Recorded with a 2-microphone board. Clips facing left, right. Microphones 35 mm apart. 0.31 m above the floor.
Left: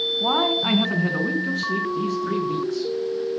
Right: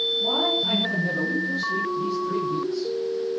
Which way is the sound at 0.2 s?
65° left (ahead or behind).